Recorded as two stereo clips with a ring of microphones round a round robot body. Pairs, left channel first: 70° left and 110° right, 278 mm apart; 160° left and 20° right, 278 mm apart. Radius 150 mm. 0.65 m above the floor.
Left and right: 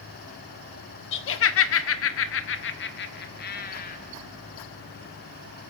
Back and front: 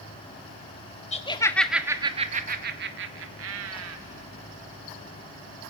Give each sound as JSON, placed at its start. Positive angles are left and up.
{"t": 1.1, "sound": "laughter", "azimuth_deg": 100, "distance_m": 0.9}